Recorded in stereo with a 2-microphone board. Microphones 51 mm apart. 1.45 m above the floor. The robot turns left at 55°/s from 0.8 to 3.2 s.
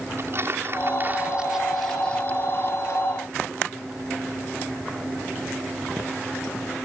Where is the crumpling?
50° right (ahead or behind); by 3.0 s 70° left (ahead or behind).